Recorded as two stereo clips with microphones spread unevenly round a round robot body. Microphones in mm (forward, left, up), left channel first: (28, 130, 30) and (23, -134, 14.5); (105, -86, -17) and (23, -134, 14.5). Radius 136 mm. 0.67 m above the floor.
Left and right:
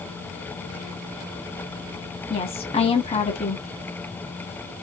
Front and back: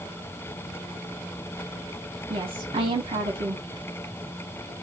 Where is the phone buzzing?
No phone buzzing in this recording.